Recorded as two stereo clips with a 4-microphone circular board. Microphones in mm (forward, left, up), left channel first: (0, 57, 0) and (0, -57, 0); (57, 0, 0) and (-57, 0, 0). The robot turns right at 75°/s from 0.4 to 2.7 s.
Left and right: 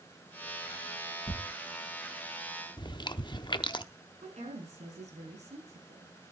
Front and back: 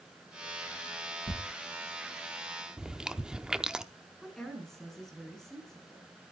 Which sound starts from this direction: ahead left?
Tearing paper, at 1.3 s.